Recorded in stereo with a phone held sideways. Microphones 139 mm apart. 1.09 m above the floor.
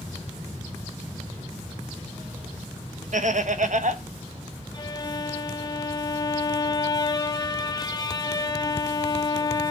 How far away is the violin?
About 0.8 m.